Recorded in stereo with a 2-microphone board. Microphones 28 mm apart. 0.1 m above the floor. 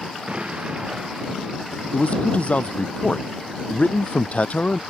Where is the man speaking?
50° left (ahead or behind).